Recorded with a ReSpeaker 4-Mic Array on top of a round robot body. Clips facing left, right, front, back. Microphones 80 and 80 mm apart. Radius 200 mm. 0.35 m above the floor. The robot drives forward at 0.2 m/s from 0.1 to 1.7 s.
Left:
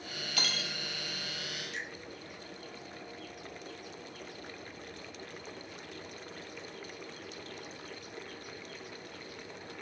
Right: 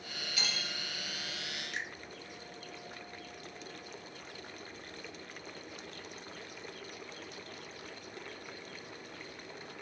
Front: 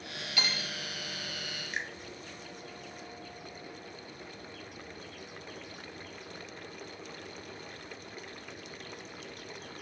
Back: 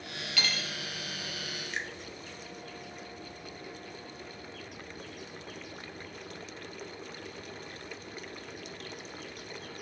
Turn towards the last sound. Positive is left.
turn(degrees=-80)